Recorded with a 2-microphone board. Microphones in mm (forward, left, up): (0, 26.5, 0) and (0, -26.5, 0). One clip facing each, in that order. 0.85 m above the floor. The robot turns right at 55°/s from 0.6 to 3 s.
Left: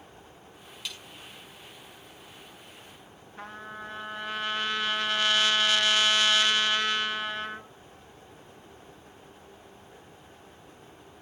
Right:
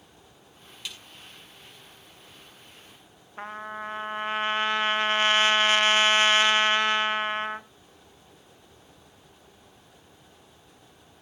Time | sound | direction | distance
0.8 | a snare drum | 5° left (ahead or behind) | 7 m
3.4 | a trumpet | 30° right (ahead or behind) | 0.9 m